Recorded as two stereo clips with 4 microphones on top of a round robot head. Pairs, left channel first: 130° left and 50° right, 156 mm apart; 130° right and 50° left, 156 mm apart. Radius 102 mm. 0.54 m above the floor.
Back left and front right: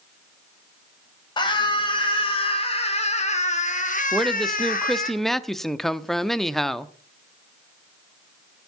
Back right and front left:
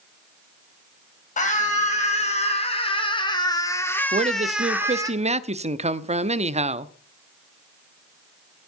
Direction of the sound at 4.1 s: 40° left.